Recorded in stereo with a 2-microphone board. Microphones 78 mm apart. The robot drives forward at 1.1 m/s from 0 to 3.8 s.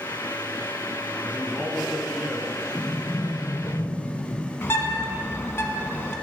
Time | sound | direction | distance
1.2 | a man speaking | 15° right (ahead or behind) | 1.8 m
2.7 | a sliding door | 55° left (ahead or behind) | 4.5 m
4.6 | a bird | 30° left (ahead or behind) | 1.1 m